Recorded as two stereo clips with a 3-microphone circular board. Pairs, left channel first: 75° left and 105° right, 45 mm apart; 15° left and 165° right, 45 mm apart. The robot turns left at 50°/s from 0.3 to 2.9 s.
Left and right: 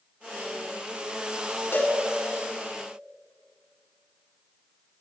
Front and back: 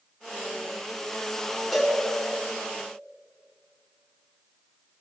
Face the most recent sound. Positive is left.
turn(degrees=50)